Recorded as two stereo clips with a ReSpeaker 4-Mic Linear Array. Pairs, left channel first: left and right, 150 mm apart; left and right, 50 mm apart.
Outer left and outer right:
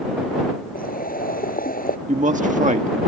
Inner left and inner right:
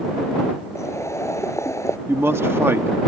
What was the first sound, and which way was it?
Boiling, 80° left.